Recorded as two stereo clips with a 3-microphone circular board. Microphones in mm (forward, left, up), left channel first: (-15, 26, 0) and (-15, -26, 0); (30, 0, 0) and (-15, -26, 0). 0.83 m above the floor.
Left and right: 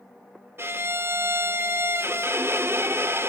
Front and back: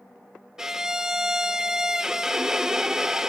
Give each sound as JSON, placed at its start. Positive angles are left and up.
{"t": 0.6, "sound": "a violin", "azimuth_deg": -70, "distance_m": 0.6}